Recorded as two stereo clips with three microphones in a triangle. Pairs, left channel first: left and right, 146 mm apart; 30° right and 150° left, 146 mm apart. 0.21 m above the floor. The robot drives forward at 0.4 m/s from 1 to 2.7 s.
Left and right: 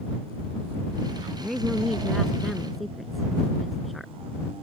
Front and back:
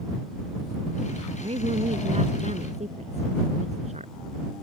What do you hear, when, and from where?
1.4 s a woman speaking: straight behind